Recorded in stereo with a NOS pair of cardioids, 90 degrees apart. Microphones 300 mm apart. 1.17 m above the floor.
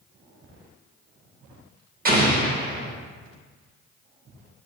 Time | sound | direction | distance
2.0 | an explosion | 30° right | 1.1 m